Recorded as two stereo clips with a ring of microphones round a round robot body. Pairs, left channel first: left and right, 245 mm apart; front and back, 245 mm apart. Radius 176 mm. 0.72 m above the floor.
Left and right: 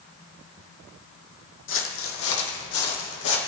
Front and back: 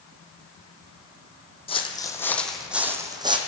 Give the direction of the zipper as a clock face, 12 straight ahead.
No zipper in this recording.